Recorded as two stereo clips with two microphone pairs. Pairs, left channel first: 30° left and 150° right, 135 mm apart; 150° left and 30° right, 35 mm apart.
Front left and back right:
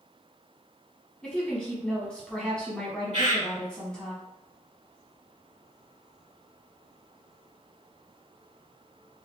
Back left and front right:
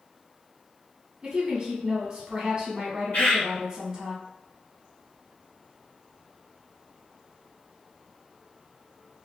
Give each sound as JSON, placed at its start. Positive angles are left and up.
{"t": 1.2, "sound": "a woman speaking", "azimuth_deg": -45, "distance_m": 0.9}
{"t": 3.1, "sound": "a bird", "azimuth_deg": 180, "distance_m": 1.7}